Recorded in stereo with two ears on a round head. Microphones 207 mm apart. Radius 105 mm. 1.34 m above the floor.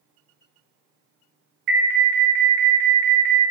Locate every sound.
1.7 s an alarm: 45° right (ahead or behind), 1.1 m